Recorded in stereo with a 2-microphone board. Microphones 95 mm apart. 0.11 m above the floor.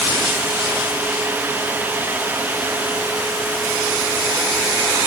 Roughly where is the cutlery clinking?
I don't hear cutlery clinking.